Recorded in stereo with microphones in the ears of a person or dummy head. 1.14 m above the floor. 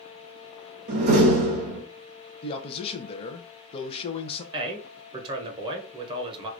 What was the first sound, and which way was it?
A door slam, 55° right (ahead or behind).